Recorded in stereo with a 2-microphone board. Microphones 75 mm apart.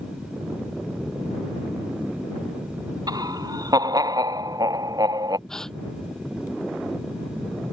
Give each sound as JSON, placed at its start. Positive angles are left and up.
{"t": 3.1, "sound": "laughter", "side_deg": -60}
{"t": 5.5, "sound": "a gasp", "side_deg": 5}